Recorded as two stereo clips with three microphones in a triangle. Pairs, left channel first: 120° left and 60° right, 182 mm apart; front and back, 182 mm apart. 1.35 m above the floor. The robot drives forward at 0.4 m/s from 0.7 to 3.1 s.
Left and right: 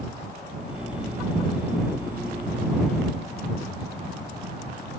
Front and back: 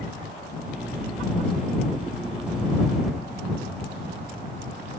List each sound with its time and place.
Only background noise.